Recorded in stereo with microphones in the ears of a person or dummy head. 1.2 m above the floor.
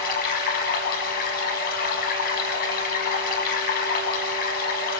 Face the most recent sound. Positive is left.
turn(degrees=50)  # may be behind; listen again after turning